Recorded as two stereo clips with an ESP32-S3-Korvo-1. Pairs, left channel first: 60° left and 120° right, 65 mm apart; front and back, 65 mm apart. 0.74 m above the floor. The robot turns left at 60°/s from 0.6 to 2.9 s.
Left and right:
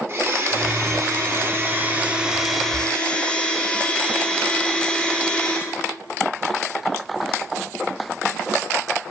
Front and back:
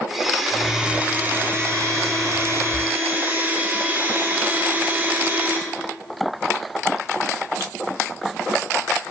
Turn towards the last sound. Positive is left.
turn(degrees=130)